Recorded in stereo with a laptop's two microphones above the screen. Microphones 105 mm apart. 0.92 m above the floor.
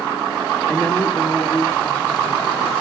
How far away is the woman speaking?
About 1.4 m.